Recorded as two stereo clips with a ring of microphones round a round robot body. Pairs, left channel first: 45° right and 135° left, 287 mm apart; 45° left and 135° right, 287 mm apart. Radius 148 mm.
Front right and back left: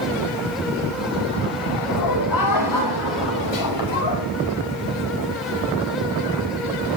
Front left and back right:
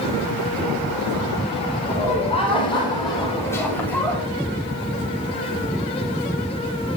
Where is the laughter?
20° right, 6 m; by 4.2 s 40° right, 7 m.